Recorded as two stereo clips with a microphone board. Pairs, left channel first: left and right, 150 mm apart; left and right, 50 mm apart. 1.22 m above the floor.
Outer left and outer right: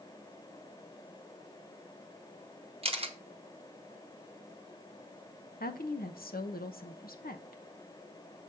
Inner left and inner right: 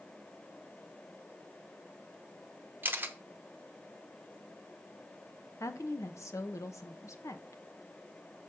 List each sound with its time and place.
2.8 s a camera shutter: 40° right (ahead or behind), 0.8 m
5.6 s a woman speaking: 85° left, 0.9 m